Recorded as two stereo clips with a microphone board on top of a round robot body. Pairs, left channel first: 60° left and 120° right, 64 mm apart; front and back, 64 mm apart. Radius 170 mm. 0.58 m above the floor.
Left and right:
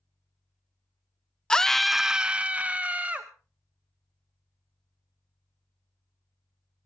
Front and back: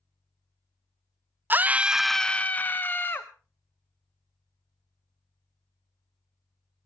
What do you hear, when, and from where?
1.5 s a scream: 135° left, 0.6 m; by 3.3 s 50° right, 1.1 m